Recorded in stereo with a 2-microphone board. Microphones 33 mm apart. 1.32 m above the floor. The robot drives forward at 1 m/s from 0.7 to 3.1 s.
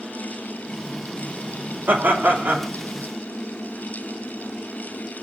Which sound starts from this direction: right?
Laughter, at 1.9 s.